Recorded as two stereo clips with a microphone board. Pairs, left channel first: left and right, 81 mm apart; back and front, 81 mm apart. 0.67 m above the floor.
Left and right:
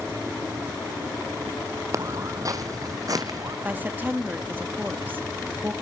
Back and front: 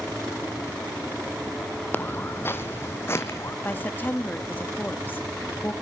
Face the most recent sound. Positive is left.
turn(degrees=-140)